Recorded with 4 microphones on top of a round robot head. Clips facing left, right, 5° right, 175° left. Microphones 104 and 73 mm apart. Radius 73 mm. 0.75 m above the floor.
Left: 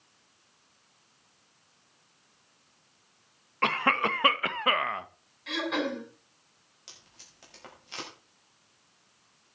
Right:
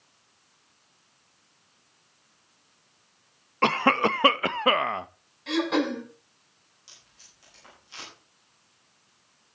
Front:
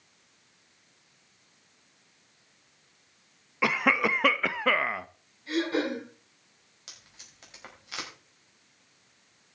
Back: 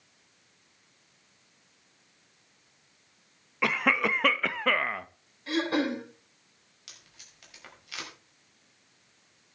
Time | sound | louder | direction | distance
3.6 | a cough | right 5 dB, front 1 dB | 85° right | 0.6 m
5.5 | throat clearing | right 6 dB, even | 145° right | 6.5 m
6.9 | tape being pulled | left 3 dB, front 1 dB | 55° left | 5.5 m